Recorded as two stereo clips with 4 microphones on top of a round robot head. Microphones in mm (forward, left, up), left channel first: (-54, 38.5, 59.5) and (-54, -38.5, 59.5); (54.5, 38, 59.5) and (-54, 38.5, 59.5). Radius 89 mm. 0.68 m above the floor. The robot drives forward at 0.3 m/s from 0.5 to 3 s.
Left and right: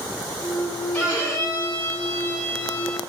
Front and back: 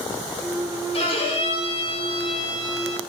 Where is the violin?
20° left, 1.3 m; by 3.0 s 35° left, 0.9 m.